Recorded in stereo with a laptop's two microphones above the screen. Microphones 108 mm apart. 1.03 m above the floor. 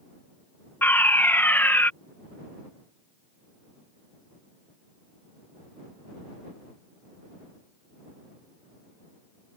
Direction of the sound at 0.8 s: 20° left (ahead or behind).